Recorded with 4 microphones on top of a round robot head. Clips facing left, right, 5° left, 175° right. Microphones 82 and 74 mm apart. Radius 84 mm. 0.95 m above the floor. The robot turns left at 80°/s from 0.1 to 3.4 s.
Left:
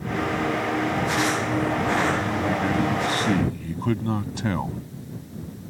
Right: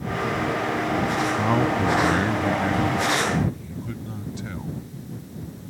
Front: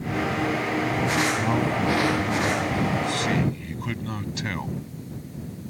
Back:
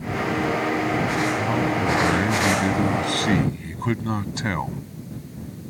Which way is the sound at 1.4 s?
70° right.